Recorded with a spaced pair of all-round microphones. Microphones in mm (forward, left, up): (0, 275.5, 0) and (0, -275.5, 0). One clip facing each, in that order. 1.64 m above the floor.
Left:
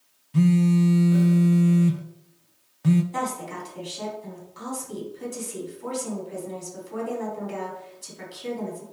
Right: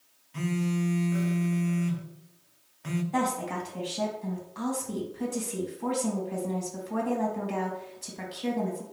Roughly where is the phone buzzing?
Left.